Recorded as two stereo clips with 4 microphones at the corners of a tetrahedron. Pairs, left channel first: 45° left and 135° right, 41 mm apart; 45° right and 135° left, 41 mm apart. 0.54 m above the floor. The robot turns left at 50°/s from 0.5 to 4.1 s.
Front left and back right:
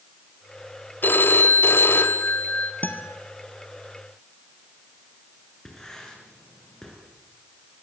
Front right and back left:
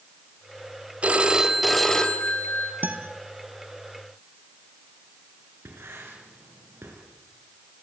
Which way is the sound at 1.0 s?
80° left.